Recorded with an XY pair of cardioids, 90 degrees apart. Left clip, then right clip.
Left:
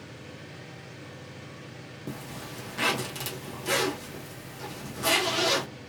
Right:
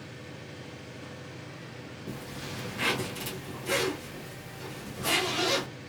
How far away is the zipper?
About 1.3 m.